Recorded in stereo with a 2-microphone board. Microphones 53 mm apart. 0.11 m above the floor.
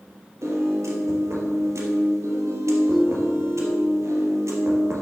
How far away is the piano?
About 2.5 m.